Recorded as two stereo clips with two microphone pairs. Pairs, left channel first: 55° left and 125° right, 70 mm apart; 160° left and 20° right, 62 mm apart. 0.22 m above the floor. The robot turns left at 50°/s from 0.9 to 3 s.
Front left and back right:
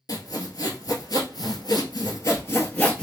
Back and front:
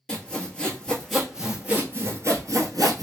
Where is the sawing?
80° left, 1.0 m; by 3.0 s 25° right, 1.0 m.